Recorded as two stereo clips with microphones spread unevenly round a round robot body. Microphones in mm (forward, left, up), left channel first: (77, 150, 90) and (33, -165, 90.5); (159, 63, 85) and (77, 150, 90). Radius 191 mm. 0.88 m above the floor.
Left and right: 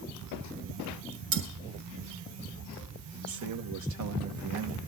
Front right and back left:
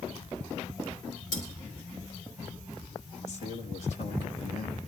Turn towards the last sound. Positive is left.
turn(degrees=-65)